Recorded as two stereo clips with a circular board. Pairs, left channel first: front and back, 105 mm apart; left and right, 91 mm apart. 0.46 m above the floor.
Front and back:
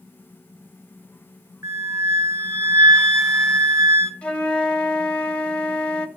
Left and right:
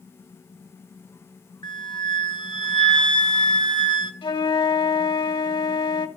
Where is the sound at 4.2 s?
80° left, 1.8 m.